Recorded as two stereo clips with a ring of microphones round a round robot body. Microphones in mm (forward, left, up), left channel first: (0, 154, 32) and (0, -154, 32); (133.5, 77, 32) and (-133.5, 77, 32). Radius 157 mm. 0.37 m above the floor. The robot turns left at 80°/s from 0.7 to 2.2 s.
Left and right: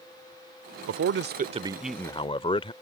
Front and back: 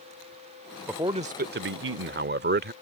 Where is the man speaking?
100° right; by 2.7 s 155° left.